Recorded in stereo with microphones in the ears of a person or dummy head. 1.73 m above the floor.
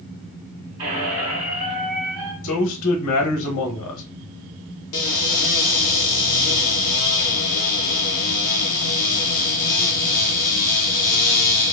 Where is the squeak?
35° right (ahead or behind), 2 m.